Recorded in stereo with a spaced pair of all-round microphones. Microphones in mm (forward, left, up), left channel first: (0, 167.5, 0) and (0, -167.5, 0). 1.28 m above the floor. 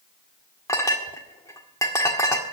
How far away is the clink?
About 1.7 m.